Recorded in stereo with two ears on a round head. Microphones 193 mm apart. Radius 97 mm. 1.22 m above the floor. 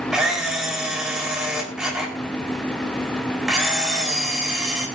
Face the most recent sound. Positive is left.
turn(degrees=-5)  # may be behind; listen again after turning